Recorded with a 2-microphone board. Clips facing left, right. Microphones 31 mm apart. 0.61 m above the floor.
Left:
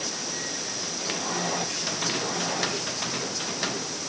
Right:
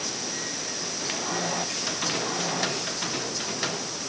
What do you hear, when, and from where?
Only background noise.